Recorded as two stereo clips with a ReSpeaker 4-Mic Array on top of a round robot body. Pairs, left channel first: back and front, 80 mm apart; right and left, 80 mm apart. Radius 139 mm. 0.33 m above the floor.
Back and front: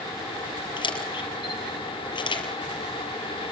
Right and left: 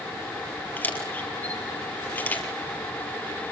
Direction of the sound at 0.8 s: 160° right.